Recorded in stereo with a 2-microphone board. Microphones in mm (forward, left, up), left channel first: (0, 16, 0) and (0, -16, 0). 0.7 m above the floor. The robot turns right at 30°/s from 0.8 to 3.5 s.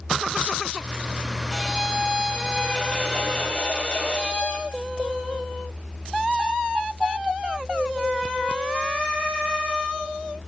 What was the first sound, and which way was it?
A violin, 5° left.